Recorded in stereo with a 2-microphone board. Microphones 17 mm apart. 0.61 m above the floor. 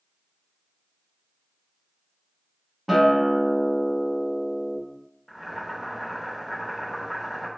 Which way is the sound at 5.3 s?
20° right (ahead or behind).